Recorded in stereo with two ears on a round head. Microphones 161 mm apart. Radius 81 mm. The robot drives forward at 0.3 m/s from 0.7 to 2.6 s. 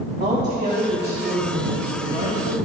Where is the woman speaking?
40° right (ahead or behind), 1.5 m; by 2.5 s 30° right (ahead or behind), 2.0 m.